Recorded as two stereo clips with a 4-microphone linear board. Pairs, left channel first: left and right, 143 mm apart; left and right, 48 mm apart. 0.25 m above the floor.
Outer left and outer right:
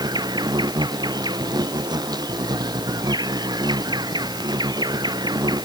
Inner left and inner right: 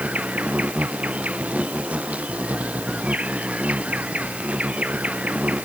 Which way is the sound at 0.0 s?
30° right (ahead or behind).